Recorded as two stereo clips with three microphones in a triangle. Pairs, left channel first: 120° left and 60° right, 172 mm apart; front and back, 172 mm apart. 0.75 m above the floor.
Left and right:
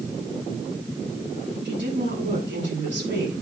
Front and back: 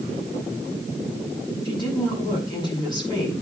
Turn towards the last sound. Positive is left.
turn(degrees=-65)